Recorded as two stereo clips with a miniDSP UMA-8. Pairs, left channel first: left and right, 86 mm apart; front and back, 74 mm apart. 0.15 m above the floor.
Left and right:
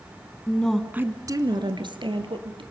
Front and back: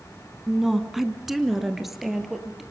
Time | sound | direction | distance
0.5 | a woman speaking | 95° left | 1.1 m